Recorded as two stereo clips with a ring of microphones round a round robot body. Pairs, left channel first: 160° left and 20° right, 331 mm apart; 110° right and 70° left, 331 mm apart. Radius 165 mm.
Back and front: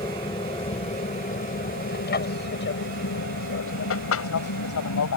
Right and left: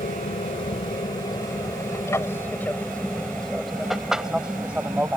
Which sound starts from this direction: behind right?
An aircraft, at 0.0 s.